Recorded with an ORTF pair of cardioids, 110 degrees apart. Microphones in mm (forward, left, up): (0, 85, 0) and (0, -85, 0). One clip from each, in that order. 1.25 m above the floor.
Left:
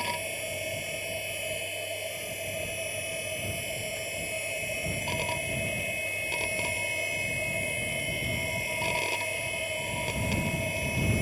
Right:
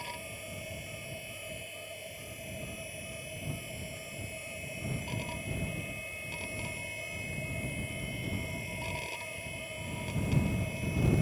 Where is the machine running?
55° left.